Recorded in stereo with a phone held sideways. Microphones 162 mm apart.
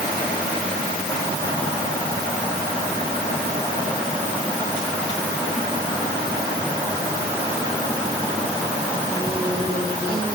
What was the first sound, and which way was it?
Only background noise.